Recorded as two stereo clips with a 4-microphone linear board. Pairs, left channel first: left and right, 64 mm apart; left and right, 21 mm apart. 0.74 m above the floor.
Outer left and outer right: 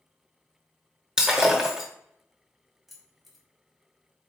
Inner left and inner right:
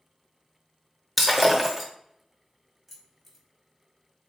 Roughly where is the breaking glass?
Centre.